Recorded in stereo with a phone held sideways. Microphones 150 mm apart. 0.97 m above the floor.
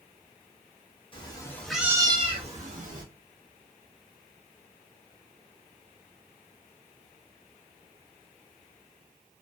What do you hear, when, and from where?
1.1 s a cat meowing: 35° left (ahead or behind), 0.7 m; by 3.0 s 60° right (ahead or behind), 1.0 m